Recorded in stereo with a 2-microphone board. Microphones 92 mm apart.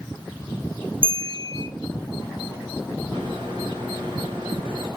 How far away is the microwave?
About 4.5 m.